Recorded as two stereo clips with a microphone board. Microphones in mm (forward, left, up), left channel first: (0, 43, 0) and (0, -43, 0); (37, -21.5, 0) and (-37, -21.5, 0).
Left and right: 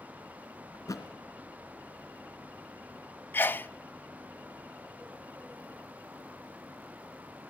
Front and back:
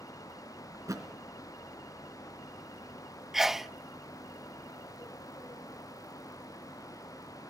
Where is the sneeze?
105° left, 0.7 m.